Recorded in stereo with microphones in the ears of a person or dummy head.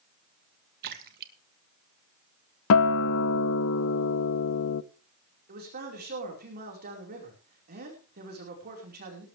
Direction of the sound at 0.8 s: 50° right (ahead or behind).